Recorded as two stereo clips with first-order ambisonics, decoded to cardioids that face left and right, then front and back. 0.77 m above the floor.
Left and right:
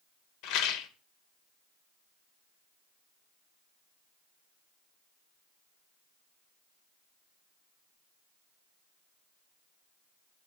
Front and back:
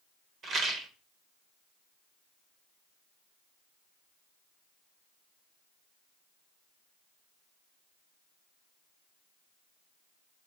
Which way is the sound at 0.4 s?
120° left.